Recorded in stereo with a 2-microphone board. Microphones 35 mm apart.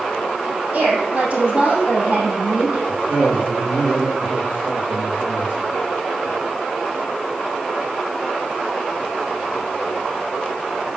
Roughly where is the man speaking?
Right.